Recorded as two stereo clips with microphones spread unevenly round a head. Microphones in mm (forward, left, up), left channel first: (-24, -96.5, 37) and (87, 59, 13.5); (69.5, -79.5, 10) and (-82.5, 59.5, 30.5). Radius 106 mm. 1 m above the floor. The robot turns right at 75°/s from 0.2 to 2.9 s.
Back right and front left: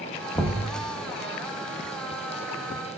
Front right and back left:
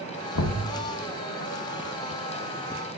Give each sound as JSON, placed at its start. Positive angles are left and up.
{"t": 0.3, "sound": "knocking", "azimuth_deg": -50, "distance_m": 0.8}